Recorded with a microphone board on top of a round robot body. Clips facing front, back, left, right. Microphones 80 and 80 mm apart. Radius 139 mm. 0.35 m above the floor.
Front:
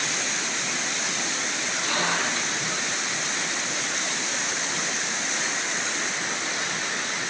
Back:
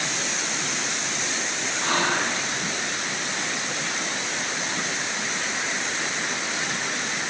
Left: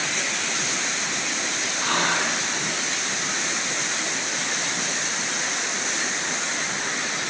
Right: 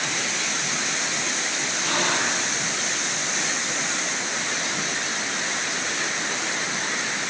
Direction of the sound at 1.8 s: 130° left.